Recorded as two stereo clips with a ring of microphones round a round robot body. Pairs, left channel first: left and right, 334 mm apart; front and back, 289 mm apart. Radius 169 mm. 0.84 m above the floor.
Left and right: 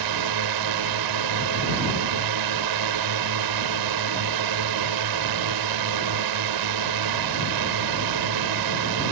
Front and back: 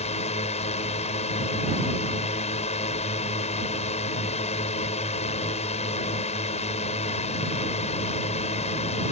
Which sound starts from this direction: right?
A drone, at 0.0 s.